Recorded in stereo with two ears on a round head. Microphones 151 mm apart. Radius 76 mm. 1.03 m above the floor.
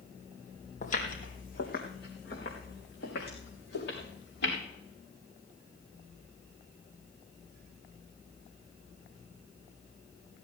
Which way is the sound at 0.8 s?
50° left (ahead or behind).